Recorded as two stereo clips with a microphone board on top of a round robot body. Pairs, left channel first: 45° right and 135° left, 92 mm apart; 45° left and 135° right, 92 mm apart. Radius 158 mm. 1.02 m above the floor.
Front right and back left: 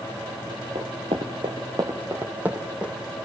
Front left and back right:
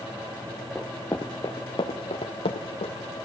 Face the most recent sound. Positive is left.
turn(degrees=50)